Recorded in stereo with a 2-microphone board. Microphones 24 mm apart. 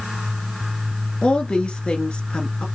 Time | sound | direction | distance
1.2 | a woman speaking | 45° left (ahead or behind) | 1.5 m